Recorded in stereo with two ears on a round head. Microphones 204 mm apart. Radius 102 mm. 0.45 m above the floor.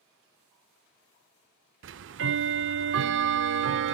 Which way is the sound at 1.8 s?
55° right (ahead or behind).